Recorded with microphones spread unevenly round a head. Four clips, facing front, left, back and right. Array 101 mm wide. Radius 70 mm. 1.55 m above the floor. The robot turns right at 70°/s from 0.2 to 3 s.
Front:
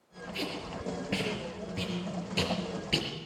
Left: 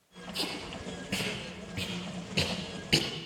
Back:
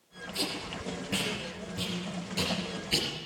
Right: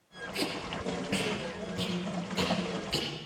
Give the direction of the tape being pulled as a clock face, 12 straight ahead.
3 o'clock.